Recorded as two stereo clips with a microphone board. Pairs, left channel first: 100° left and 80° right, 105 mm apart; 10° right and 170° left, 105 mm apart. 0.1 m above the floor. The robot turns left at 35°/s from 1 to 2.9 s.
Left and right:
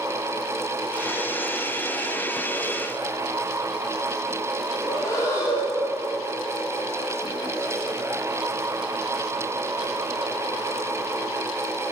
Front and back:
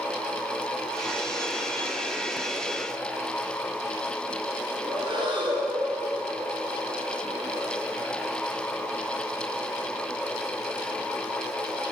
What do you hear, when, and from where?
4.8 s breathing: 150° left, 2.5 m